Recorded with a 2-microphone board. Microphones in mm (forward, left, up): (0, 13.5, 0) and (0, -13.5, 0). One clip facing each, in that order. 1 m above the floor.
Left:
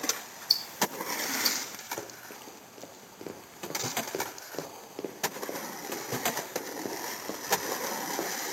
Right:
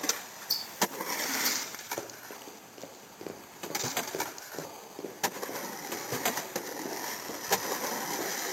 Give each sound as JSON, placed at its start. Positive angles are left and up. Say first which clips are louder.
{"t": 0.5, "sound": "ticking", "louder": "left 3 dB", "side_deg": 50, "distance_m": 1.6}
{"t": 2.0, "sound": "running footsteps", "louder": "right 1 dB", "side_deg": -25, "distance_m": 1.4}